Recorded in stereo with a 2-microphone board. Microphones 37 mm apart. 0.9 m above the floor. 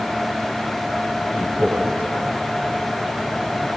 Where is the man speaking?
65° right (ahead or behind), 8.5 m.